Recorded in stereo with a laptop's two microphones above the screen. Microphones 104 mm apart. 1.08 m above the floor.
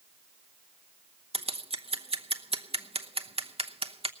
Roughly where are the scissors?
Right.